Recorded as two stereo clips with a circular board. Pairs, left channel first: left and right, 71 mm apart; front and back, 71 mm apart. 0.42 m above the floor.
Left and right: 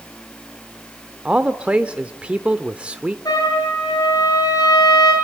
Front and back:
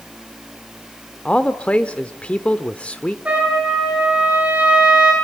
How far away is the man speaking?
About 1.0 m.